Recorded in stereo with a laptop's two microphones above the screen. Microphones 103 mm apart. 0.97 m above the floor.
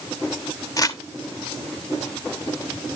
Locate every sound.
0.8 s crumpling: 35° left (ahead or behind), 1.2 m